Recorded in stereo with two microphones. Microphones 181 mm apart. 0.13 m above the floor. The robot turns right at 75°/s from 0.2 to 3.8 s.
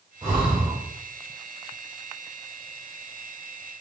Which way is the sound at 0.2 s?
30° right (ahead or behind).